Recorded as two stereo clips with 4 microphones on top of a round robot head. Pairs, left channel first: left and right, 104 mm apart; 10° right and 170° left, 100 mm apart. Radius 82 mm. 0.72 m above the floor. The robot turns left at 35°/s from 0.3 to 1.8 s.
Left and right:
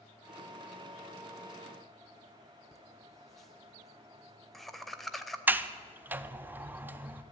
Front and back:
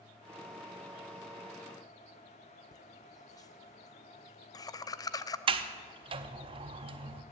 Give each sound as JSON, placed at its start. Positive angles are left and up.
{"t": 2.7, "sound": "laughter", "azimuth_deg": 5, "distance_m": 0.6}
{"t": 5.5, "sound": "a sliding door", "azimuth_deg": -160, "distance_m": 0.6}